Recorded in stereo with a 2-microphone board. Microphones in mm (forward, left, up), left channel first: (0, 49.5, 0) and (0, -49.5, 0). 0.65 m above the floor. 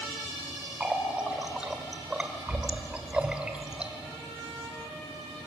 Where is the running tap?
10° right (ahead or behind), 1.8 m.